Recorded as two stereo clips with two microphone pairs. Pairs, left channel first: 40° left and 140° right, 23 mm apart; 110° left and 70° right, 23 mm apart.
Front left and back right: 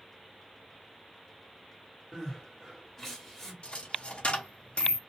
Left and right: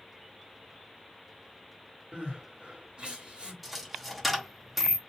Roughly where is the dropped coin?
Ahead.